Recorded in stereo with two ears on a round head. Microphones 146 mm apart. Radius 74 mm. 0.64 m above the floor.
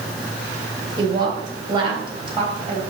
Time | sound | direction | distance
1.0 | a woman speaking | 25° right (ahead or behind) | 2.5 m